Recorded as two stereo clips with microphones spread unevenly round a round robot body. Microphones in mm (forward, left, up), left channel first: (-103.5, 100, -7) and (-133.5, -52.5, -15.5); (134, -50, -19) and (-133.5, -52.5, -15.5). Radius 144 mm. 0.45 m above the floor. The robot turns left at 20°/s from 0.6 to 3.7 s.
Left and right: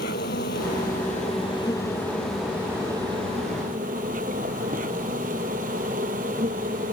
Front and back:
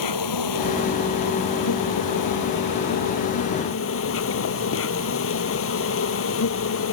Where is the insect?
25° left; by 6.9 s 40° right.